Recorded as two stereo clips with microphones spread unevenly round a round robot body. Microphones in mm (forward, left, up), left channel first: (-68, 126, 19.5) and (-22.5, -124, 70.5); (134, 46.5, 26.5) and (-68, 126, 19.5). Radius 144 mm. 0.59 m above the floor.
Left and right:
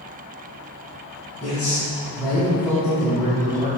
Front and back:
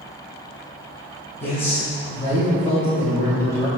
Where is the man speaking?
25° left, 2.5 m.